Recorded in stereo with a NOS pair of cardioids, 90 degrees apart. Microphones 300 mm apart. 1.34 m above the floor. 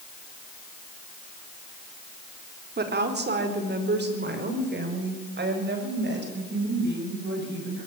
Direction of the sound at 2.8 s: 30° right.